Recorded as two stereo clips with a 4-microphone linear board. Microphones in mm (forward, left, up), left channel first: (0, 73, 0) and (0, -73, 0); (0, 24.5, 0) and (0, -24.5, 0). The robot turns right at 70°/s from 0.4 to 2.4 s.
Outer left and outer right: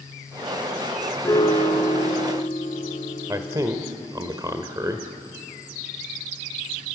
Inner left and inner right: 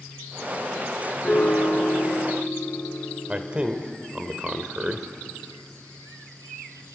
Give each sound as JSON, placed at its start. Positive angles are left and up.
{"t": 1.2, "sound": "a piano", "azimuth_deg": 20, "distance_m": 2.0}
{"t": 3.3, "sound": "a man speaking", "side_deg": -25, "distance_m": 1.2}